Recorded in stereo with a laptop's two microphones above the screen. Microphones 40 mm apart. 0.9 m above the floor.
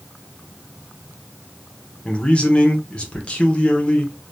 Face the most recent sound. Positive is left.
turn(degrees=25)  # may be behind; listen again after turning